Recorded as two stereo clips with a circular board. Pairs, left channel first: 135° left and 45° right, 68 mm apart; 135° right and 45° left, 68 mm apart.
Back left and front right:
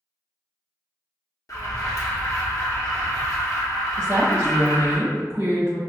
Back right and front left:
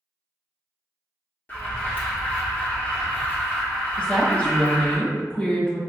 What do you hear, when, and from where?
1.5 s an alarm: 165° left, 1.0 m
4.0 s a woman speaking: 70° right, 1.2 m